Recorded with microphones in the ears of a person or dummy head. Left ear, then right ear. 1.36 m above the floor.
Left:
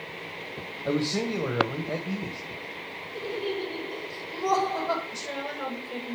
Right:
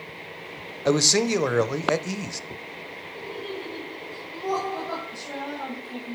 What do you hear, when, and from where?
0.8 s a man speaking: 70° right (ahead or behind), 0.7 m
3.1 s laughter: 70° left (ahead or behind), 4 m
5.1 s a woman speaking: 50° left (ahead or behind), 1.8 m